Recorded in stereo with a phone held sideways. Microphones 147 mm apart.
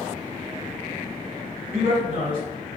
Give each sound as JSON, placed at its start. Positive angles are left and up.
{"t": 1.7, "sound": "a man speaking", "side_deg": -85, "distance_m": 1.8}